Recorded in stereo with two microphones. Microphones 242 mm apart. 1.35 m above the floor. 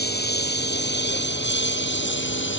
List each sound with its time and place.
0.0 s a lawn mower: 45° left (ahead or behind); by 2.6 s 50° left (ahead or behind)